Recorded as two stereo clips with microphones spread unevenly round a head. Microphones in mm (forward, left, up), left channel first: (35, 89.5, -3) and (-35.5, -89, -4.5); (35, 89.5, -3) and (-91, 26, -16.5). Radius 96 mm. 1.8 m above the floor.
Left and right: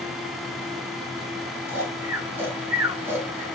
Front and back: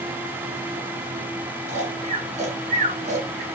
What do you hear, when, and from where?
1.7 s snoring: 170° left, 4 m